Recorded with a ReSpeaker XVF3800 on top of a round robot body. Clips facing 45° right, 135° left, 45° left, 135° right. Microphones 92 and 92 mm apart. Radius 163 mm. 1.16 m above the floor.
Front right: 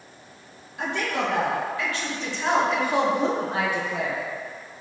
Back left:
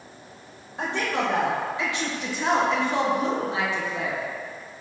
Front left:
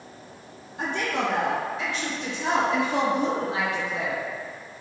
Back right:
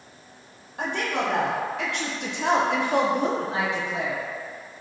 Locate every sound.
0.8 s a woman speaking: 170° right, 1.7 m; by 4.2 s 60° right, 1.0 m